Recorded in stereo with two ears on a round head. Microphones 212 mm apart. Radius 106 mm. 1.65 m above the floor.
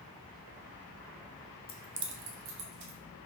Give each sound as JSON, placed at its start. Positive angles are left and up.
{"t": 1.7, "sound": "keys jangling", "side_deg": 25, "distance_m": 0.6}